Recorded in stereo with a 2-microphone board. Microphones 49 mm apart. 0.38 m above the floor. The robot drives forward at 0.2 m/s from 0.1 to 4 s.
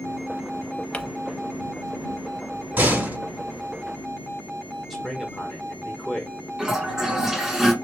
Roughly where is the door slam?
Right.